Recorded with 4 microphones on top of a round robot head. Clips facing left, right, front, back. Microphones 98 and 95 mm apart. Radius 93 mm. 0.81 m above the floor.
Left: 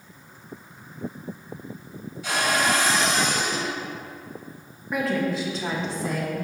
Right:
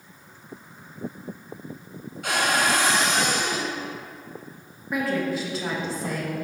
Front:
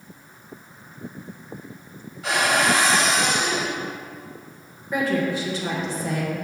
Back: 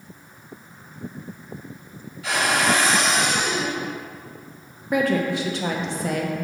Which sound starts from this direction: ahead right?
A cupboard door, at 2.2 s.